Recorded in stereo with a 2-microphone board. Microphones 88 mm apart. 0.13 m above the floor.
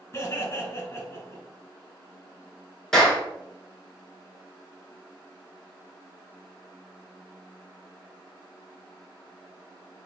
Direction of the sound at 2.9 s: 5° left (ahead or behind).